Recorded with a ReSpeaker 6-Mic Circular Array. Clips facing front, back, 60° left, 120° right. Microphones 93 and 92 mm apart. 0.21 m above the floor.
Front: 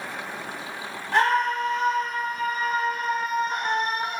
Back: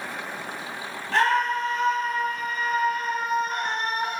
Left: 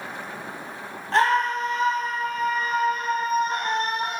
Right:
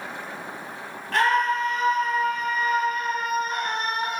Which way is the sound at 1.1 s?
60° left.